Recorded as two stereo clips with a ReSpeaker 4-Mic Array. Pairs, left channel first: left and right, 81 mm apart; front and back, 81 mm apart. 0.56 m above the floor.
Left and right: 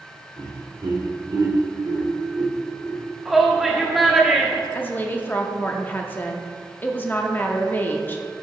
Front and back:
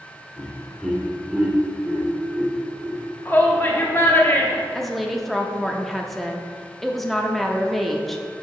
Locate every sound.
0.4 s laughter: 80° right, 1.6 m; by 3.0 s 145° right, 1.4 m
3.2 s a shout: 5° right, 1.0 m
4.7 s a woman speaking: 90° left, 0.6 m